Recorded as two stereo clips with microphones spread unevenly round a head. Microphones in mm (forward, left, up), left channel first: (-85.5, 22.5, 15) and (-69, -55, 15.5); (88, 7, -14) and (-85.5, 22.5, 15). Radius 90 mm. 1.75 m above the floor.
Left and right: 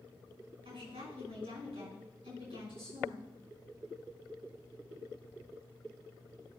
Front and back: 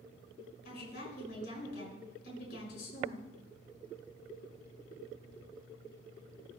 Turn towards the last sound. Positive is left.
turn(degrees=-50)